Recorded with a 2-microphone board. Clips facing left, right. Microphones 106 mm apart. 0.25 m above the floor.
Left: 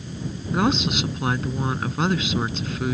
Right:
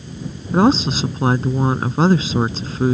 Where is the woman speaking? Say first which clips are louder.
Right 7 dB; 35° right (ahead or behind).